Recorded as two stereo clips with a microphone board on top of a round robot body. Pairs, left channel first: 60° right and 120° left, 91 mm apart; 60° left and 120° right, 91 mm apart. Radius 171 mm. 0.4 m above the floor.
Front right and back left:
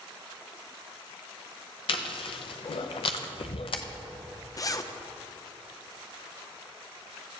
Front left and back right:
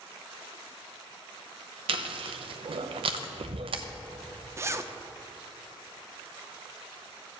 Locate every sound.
1.9 s chewing: 90° right, 0.7 m
4.6 s a zipper: 80° right, 0.9 m